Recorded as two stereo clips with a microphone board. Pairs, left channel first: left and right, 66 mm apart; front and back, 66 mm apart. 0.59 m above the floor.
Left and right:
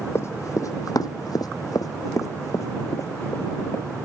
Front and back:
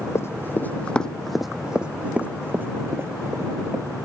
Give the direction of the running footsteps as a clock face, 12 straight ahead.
11 o'clock.